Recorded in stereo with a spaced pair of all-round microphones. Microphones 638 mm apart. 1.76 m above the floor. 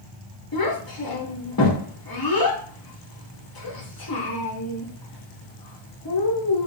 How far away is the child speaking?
About 0.6 m.